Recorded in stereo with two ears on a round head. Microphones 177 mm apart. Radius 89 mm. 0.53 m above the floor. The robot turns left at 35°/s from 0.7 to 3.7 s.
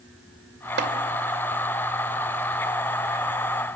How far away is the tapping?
About 2.5 m.